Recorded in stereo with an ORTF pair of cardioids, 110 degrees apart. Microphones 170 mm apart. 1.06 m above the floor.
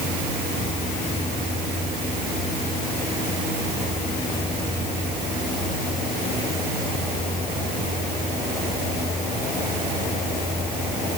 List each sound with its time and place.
Only background noise.